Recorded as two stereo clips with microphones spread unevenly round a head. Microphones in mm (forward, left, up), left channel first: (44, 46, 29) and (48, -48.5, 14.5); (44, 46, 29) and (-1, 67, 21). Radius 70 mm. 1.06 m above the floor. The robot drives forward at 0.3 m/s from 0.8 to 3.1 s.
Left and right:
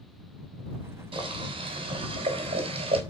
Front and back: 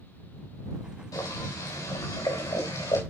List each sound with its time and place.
1.1 s boiling: 55° right, 4 m; by 3.0 s 65° right, 3.5 m